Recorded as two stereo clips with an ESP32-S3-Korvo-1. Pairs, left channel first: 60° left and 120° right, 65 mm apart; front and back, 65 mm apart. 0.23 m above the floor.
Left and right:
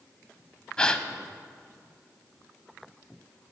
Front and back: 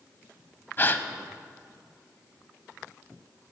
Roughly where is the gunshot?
I don't hear a gunshot.